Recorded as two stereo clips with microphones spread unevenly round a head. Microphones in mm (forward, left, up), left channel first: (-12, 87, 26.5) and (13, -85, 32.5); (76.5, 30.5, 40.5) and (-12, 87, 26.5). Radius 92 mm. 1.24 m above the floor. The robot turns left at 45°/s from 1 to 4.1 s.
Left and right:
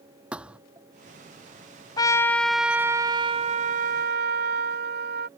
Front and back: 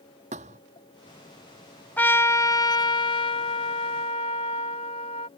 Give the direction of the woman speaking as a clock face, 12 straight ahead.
I don't hear a woman speaking.